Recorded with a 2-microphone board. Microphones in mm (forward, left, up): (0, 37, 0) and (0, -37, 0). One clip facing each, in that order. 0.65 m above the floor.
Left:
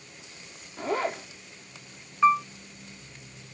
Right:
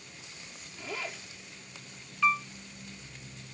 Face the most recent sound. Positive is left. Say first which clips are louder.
# left 7 dB
turn(degrees=30)  # may be behind; listen again after turning